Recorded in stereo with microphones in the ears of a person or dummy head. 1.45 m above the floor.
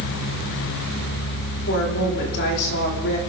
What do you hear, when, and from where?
1.7 s a woman speaking: 60° left (ahead or behind), 3.5 m